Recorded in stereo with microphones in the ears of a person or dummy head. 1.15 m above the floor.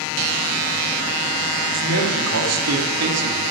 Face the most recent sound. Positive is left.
turn(degrees=-70)  # may be behind; listen again after turning